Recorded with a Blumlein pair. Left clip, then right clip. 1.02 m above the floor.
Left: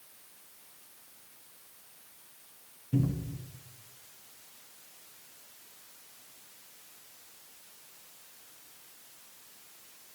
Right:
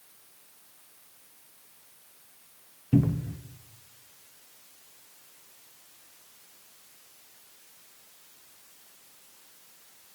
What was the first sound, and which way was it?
A cupboard door, 60° right.